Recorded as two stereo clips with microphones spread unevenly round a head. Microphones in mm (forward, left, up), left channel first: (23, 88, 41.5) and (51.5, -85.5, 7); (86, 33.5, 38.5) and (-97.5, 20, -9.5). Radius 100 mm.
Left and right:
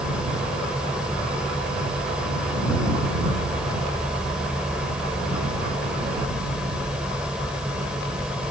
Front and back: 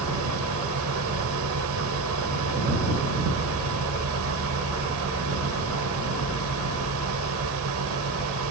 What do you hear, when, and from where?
0.0 s a machine running: 170° right